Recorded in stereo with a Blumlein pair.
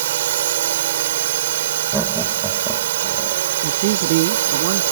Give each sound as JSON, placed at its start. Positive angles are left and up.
{"t": 0.0, "sound": "a drone", "azimuth_deg": -60}
{"t": 1.9, "sound": "laughter", "azimuth_deg": -5}
{"t": 3.6, "sound": "a man speaking", "azimuth_deg": -50}